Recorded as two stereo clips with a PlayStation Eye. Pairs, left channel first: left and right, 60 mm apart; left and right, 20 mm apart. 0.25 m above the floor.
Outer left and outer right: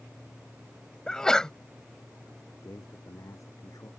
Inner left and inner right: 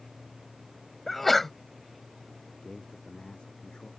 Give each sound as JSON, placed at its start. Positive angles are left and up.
{"t": 1.1, "sound": "a sneeze", "side_deg": 10}
{"t": 2.5, "sound": "a man speaking", "side_deg": 60}